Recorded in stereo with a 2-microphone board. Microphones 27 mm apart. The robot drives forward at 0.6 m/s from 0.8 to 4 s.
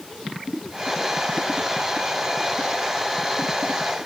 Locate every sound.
Only background noise.